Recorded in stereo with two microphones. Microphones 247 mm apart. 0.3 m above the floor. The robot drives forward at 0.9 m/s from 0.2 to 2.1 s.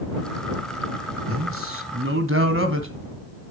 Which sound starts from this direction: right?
A man speaking, at 1.3 s.